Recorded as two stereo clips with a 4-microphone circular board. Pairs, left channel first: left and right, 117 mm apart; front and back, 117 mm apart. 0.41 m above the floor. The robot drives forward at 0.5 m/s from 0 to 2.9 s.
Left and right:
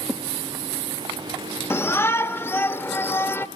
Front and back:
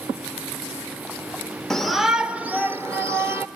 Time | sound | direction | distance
1.7 | a shout | 80° left | 1.3 m